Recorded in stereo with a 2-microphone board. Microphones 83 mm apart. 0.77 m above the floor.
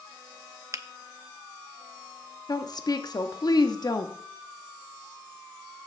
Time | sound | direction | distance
0.7 | a finger snap | 40° right (ahead or behind) | 0.5 m
2.5 | a woman speaking | 55° left (ahead or behind) | 0.9 m